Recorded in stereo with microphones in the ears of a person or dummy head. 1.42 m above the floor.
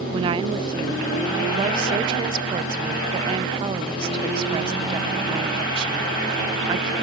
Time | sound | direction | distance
0.1 | a woman speaking | 25° right (ahead or behind) | ?